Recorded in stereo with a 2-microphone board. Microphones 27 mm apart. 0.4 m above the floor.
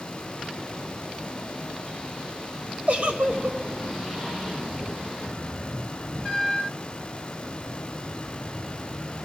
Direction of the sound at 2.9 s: 50° right (ahead or behind).